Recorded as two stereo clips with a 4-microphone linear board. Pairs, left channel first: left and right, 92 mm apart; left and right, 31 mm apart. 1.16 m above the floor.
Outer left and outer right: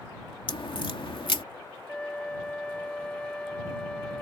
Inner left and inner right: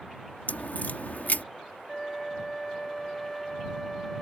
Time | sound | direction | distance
0.5 | a crack | 65° left (ahead or behind) | ?
1.9 | a flute | 10° left (ahead or behind) | ?